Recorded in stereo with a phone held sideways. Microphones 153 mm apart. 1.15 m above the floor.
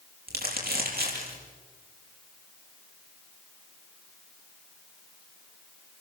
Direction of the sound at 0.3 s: 80° right.